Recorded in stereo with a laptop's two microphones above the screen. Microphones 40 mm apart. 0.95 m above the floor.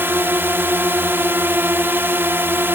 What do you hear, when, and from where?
0.0 s a drone: 70° right (ahead or behind)